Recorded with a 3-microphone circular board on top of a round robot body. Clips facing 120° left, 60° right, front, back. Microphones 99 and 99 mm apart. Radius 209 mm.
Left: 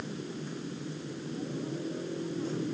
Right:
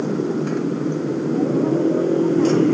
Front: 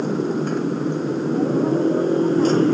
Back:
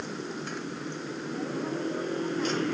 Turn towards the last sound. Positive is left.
turn(degrees=-55)